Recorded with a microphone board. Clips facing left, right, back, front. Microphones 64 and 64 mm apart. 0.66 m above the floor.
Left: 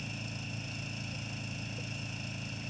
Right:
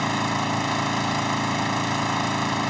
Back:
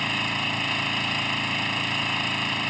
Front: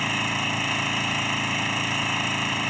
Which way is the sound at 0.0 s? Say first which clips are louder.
Right 19 dB, front 1 dB; 85° right.